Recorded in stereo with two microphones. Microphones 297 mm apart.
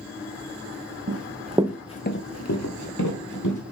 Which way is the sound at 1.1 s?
50° right (ahead or behind).